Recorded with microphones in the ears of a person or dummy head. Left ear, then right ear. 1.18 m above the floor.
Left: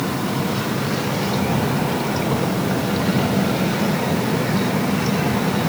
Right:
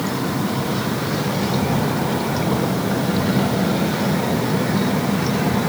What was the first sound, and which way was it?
Only background noise.